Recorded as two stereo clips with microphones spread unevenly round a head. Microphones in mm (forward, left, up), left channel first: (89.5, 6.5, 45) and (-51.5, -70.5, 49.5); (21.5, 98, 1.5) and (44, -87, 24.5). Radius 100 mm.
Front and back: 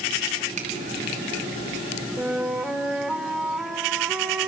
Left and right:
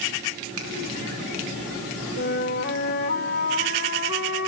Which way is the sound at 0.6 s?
105° right.